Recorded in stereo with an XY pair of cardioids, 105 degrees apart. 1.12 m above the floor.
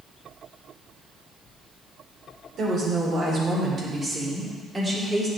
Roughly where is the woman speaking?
Ahead right.